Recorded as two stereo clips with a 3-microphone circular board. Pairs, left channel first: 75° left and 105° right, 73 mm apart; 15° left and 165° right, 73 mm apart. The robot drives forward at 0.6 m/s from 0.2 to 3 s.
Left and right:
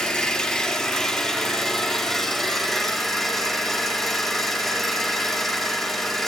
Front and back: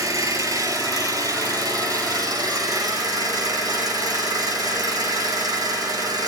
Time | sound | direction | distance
0.0 | an engine running | 160° left | 3 m